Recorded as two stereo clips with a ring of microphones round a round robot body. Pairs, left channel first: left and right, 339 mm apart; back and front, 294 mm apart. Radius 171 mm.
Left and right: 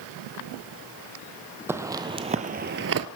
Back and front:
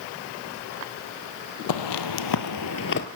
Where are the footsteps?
175° right, 1.2 m; by 3.1 s 125° right, 0.7 m.